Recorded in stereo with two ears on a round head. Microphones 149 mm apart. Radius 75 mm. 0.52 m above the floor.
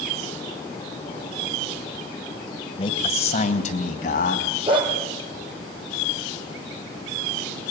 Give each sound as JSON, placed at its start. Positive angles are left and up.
{"t": 2.8, "sound": "a man speaking", "side_deg": 30, "distance_m": 2.0}
{"t": 4.7, "sound": "a dog barking", "side_deg": -30, "distance_m": 4.5}